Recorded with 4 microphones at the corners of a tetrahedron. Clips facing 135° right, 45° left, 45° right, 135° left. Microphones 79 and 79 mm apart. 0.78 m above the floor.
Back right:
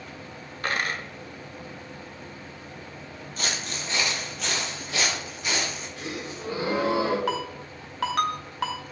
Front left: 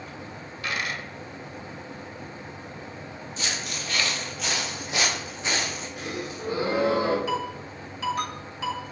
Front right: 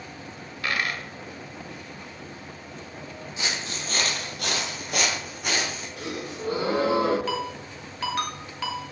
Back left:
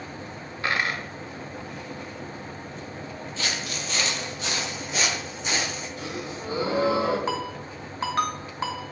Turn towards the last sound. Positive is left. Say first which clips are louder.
# front left 1 dB, even
turn(degrees=-165)